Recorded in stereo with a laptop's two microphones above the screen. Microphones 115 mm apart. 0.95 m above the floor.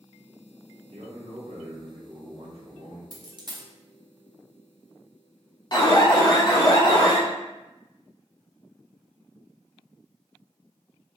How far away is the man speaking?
About 1.3 m.